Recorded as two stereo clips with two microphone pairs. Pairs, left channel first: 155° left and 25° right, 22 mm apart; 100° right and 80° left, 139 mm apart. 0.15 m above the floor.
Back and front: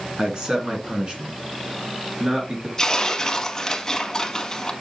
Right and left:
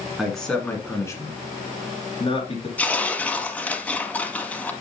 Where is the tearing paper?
165° right, 1.1 m.